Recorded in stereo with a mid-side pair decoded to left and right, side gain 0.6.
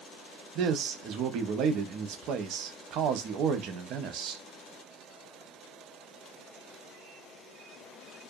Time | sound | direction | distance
0.6 | a man speaking | 60° right | 0.7 m